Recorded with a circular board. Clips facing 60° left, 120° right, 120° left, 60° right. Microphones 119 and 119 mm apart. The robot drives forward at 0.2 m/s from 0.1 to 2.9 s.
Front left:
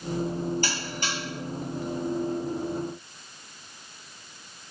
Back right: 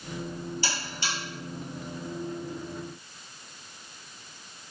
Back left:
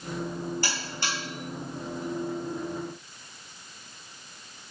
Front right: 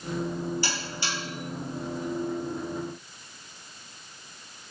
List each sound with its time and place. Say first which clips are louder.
0.6 s a buzzer: front left 2 dB, even; 90° left, 1.3 m; by 1.2 s 95° left, 1.3 m